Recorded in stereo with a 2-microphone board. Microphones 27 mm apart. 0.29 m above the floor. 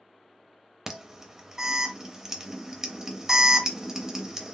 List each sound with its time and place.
0.9 s an alarm: 20° right (ahead or behind), 0.6 m